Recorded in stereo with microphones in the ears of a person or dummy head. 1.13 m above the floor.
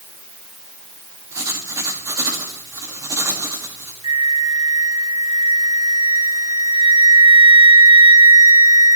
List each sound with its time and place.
1.3 s writing: 10° right (ahead or behind), 1.8 m
4.0 s a flute: 20° right (ahead or behind), 0.8 m